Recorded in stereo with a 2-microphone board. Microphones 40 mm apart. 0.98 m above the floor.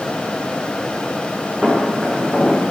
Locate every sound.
1.6 s footsteps: 15° right (ahead or behind), 4.5 m; by 2.7 s 25° right (ahead or behind), 4.5 m